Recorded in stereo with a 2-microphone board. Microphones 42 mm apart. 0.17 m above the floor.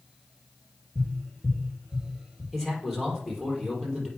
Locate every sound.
0.9 s tapping: 10° left (ahead or behind), 4 m
2.5 s a man speaking: 10° left (ahead or behind), 4 m